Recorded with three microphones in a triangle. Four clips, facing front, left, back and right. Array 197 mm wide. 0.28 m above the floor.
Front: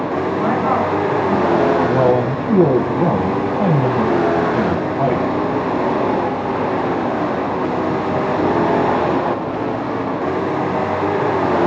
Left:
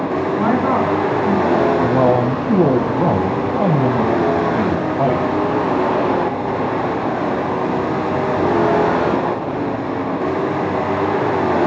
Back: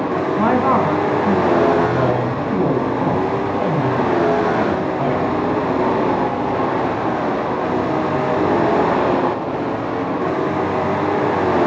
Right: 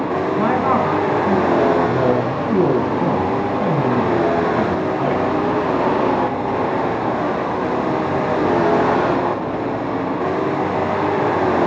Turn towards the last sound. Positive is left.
turn(degrees=65)